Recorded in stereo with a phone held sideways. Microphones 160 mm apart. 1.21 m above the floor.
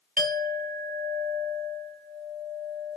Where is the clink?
60° right (ahead or behind), 0.9 m.